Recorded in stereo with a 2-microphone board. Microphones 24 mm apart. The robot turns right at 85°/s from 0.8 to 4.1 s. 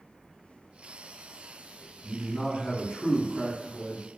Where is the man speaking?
5° left, 1.0 m; by 4.0 s 175° left, 1.0 m.